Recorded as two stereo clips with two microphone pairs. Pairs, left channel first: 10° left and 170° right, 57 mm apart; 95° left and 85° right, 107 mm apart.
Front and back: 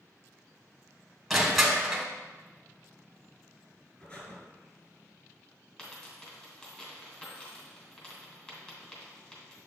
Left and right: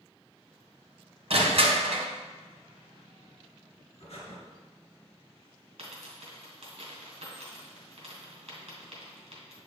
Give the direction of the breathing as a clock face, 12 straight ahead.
10 o'clock.